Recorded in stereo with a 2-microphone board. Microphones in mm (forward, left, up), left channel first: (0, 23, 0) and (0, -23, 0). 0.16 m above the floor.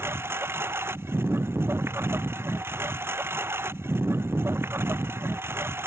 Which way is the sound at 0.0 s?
65° right (ahead or behind).